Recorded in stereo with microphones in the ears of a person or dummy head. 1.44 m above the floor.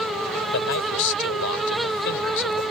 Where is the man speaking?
70° left (ahead or behind).